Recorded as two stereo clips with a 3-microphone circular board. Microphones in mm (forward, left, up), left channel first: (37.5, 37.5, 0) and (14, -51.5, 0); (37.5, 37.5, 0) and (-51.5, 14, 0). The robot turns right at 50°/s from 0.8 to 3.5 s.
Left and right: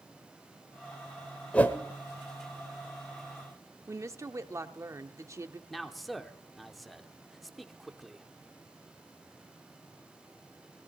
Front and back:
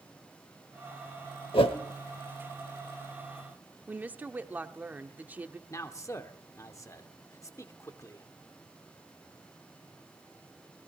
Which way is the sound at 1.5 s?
5° right.